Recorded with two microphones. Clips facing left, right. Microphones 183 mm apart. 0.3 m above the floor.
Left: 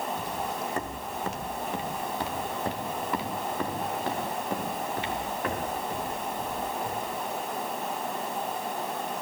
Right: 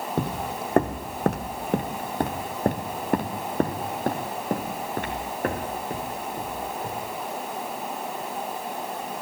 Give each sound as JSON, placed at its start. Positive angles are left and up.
{"t": 0.2, "sound": "footsteps", "side_deg": -65, "distance_m": 0.7}